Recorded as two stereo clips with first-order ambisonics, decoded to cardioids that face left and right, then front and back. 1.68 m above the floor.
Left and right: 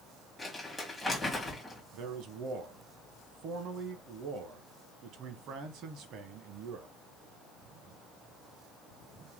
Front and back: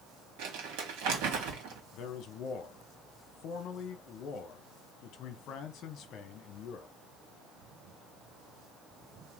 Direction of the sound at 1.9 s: 45° right.